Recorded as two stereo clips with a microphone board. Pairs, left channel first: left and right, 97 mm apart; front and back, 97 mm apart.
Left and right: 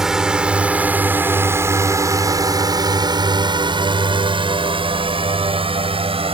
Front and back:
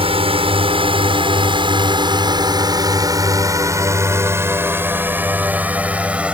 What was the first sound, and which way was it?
A drone, 175° right.